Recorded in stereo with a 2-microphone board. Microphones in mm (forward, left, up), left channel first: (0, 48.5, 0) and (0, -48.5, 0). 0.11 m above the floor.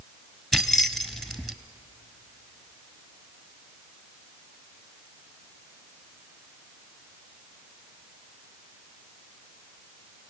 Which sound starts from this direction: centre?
Keys jangling, at 0.5 s.